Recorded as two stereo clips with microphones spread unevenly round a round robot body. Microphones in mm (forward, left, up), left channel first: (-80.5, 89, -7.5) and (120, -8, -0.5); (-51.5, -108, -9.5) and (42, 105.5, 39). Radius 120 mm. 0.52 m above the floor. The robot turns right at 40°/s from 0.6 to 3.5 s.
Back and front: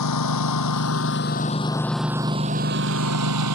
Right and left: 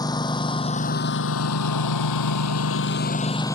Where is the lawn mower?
170° left; by 3.6 s 35° right.